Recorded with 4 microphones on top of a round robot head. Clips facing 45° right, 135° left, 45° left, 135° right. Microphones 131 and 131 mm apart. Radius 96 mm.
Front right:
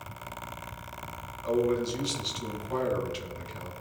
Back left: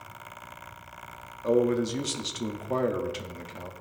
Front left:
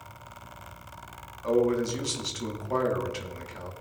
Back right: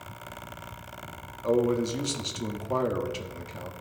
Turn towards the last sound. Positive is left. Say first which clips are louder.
# back left 3 dB, even
turn(degrees=160)